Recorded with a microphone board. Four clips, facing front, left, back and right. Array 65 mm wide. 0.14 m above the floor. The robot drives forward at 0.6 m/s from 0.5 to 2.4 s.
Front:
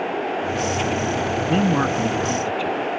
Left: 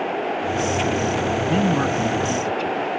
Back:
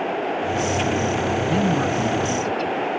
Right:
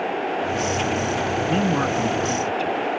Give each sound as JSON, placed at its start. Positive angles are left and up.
{"t": 1.5, "sound": "a man speaking", "azimuth_deg": -5}